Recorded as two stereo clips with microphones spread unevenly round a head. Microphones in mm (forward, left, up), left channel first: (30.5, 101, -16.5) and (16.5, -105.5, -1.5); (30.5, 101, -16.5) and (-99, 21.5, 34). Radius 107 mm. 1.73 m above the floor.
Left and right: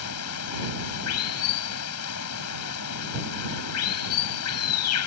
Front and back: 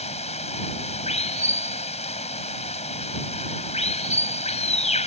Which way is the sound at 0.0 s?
80° left.